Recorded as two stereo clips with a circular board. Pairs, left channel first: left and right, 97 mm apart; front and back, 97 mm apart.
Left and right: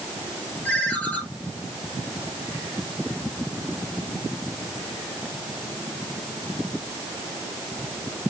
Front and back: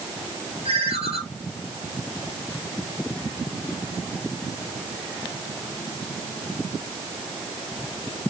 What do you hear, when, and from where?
0.7 s a ringtone: 165° left, 6 m